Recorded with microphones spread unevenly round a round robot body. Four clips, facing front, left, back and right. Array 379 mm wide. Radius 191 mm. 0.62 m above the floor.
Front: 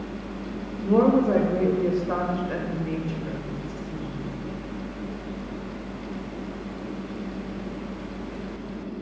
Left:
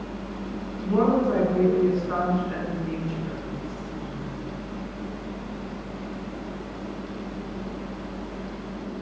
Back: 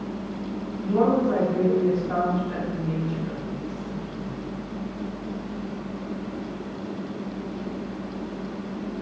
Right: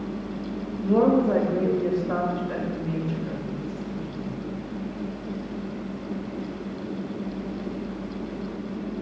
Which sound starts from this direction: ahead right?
A woman speaking, at 0.8 s.